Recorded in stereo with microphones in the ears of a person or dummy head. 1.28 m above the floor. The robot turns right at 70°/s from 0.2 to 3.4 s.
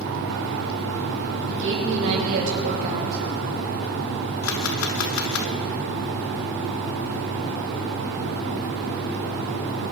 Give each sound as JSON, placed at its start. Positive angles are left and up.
{"t": 1.5, "sound": "a woman speaking", "azimuth_deg": -135, "distance_m": 4.5}
{"t": 4.4, "sound": "a camera shutter", "side_deg": 85, "distance_m": 1.3}